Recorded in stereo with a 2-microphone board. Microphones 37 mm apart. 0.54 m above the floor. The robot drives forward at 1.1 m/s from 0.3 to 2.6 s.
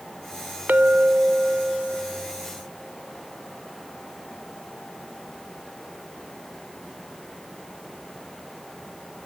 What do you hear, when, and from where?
0.7 s a clink: 50° right (ahead or behind); by 4.3 s 15° right (ahead or behind)